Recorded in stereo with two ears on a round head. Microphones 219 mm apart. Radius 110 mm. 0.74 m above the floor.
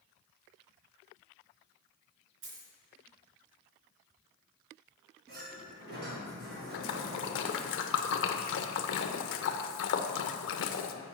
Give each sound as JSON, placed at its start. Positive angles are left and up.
{"t": 2.4, "sound": "a dropped coin", "side_deg": -55, "distance_m": 3.5}
{"t": 5.3, "sound": "a sliding door", "side_deg": -45, "distance_m": 3.5}
{"t": 6.7, "sound": "a splash", "side_deg": 50, "distance_m": 0.7}